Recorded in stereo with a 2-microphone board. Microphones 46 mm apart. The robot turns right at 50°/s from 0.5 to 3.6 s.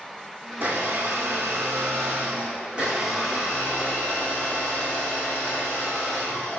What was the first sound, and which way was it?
A blender, 135° right.